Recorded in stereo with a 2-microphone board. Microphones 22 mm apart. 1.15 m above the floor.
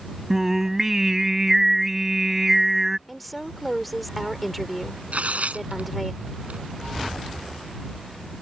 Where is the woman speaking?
Centre (ahead or behind).